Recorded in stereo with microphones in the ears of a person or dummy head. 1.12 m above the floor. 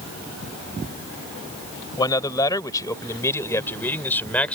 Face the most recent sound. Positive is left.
turn(degrees=15)  # may be behind; listen again after turning